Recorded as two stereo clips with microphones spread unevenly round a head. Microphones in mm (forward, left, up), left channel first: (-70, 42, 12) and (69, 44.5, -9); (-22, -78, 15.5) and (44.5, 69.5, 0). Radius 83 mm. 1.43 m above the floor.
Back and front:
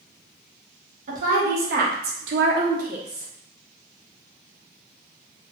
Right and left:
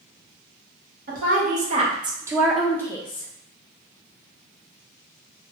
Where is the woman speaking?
30° left, 1.1 m; by 3.3 s 65° right, 0.7 m.